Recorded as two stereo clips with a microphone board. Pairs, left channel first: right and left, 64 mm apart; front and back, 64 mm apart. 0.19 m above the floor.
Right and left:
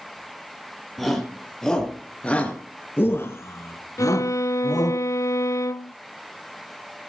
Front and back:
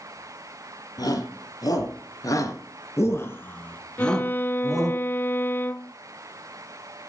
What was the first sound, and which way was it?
A shout, straight ahead.